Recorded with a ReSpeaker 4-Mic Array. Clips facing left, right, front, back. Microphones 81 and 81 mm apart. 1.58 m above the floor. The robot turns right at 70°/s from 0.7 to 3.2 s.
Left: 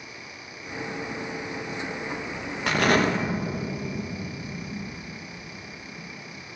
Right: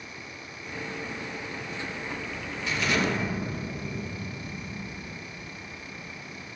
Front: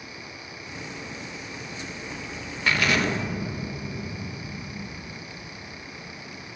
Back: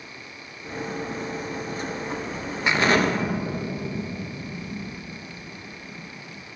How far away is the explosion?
About 2.5 m.